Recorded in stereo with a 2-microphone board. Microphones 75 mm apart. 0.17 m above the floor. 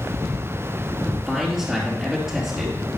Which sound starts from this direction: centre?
A man speaking, at 1.0 s.